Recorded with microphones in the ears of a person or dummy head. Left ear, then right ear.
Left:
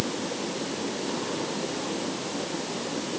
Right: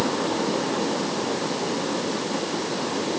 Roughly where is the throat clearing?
I don't hear throat clearing.